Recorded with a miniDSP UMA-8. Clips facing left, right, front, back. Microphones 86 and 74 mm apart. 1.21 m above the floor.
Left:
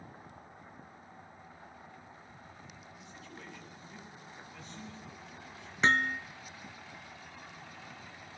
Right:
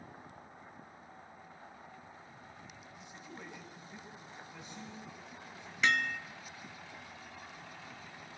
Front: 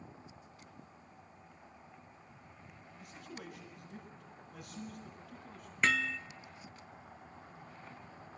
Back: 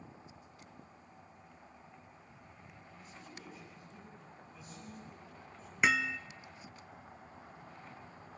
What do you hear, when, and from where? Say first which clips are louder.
3.0 s a man speaking: right 1 dB, front 4 dB; 20° right, 8.5 m
5.8 s hammering: left 3 dB, back 1 dB; 110° left, 0.8 m